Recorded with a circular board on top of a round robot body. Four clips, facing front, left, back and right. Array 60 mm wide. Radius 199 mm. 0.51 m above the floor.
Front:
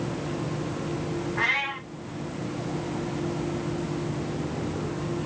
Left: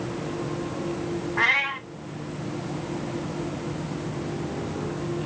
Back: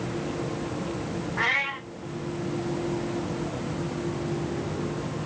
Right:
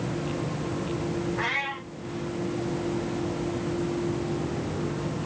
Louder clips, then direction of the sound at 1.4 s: Left 6 dB, back 1 dB; 95° left.